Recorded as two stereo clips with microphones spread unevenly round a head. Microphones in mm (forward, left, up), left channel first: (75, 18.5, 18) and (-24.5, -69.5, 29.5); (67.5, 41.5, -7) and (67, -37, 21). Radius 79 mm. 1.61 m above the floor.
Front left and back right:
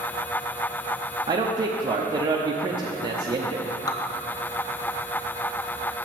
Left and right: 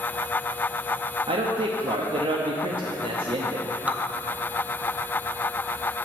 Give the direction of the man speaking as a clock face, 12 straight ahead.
3 o'clock.